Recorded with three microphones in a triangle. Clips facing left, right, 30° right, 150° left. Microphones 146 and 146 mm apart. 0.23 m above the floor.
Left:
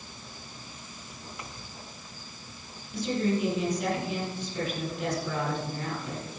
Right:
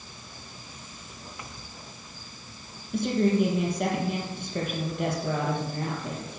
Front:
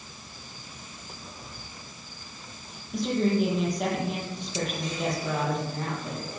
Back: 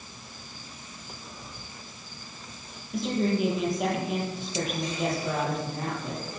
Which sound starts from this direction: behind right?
A woman speaking, at 2.9 s.